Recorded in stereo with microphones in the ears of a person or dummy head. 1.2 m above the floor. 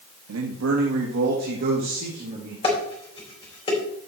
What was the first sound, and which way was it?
A man speaking, 85° right.